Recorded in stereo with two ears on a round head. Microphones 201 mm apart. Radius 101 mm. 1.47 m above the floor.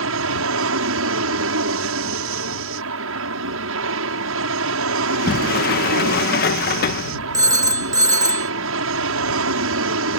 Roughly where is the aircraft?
Right.